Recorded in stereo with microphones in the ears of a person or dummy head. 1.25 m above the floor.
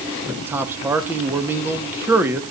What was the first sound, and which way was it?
A man speaking, 5° right (ahead or behind).